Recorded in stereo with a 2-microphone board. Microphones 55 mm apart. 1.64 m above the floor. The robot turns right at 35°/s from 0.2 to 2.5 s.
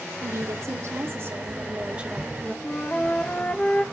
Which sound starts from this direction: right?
A woman speaking, at 0.2 s.